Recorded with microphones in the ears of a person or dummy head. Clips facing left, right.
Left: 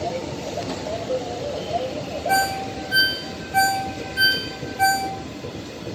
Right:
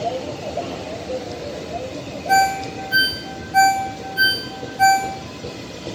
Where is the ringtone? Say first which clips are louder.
Right 6 dB; 5° right (ahead or behind), 0.6 m.